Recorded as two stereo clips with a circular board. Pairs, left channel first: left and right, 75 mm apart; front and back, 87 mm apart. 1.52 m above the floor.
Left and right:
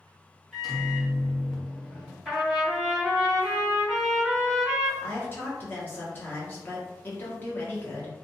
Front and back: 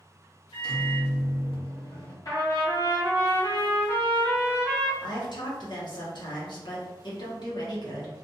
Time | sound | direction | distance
0.5 | a microwave | straight ahead | 1.1 m
2.2 | a trumpet | straight ahead | 1.7 m
5.0 | a woman speaking | 25° left | 1.0 m